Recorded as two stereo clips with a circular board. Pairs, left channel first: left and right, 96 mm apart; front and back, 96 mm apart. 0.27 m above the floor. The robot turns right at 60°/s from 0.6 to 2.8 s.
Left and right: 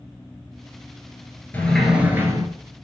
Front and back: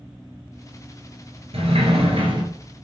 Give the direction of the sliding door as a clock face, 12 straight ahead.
7 o'clock.